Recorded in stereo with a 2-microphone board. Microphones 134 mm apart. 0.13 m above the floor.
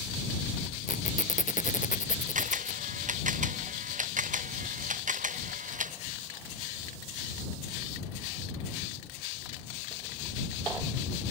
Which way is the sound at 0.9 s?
75° left (ahead or behind).